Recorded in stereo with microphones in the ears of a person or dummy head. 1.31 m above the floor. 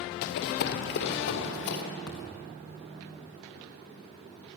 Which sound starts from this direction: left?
Running footsteps, at 0.2 s.